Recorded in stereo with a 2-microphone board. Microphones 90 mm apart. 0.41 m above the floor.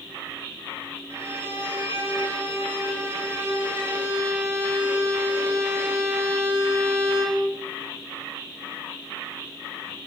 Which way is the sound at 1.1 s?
30° right (ahead or behind).